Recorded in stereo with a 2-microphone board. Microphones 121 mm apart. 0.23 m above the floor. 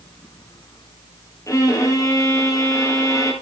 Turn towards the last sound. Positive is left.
turn(degrees=25)  # may be behind; listen again after turning